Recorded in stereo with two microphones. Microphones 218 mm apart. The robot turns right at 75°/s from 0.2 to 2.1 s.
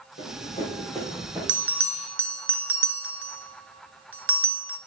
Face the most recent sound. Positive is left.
turn(degrees=-75)  # may be behind; listen again after turning